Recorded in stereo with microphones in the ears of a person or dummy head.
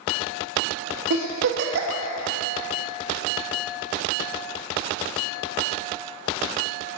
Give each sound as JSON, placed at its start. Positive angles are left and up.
{"t": 1.1, "sound": "a giggle", "side_deg": -70, "distance_m": 1.8}